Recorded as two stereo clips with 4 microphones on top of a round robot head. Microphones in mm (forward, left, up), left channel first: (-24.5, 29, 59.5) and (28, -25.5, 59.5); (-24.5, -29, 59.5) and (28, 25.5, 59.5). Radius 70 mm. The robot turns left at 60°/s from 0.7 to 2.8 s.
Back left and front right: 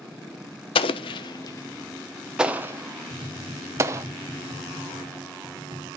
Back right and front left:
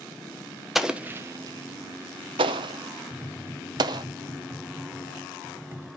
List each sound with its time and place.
0.8 s an explosion: 135° left, 0.6 m; by 4.0 s 10° left, 0.6 m
3.1 s tapping: 15° right, 1.6 m